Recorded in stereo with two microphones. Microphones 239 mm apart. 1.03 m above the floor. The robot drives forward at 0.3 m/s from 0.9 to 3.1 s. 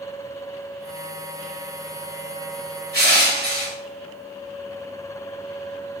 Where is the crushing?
40° right (ahead or behind), 1.5 m.